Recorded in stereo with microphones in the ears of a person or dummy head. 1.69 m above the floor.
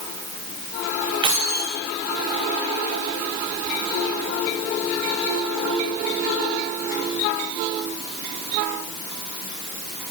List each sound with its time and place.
1.2 s keys jangling: 20° right (ahead or behind), 0.7 m